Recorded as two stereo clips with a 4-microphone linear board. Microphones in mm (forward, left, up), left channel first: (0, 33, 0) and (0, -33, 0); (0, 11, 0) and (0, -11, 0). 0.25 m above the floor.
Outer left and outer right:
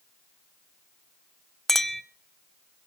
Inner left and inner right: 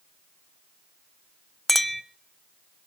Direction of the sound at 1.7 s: 5° left (ahead or behind).